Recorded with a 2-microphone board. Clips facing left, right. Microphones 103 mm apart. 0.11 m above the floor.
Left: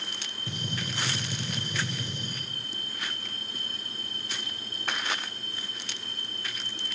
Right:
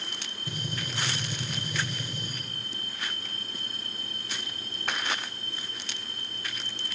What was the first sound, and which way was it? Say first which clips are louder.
A gunshot: left 1 dB; 25° left (ahead or behind).